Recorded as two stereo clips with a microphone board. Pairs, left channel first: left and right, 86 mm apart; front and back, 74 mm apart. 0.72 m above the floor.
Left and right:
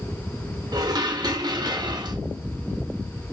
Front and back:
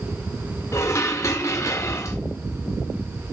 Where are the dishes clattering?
50° right, 1.1 m.